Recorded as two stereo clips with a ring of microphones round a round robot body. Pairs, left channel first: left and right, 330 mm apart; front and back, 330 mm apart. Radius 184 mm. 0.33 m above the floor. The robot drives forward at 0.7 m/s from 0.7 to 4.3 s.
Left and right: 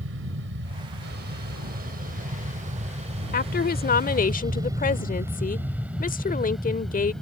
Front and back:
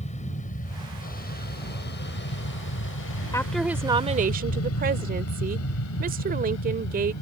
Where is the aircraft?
55° right; by 7.2 s 5° left.